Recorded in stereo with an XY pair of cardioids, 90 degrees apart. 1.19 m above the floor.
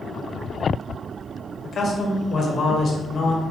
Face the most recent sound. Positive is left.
turn(degrees=60)